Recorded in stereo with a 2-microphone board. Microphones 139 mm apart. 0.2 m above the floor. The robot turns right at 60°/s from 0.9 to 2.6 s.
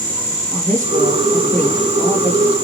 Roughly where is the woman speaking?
Right.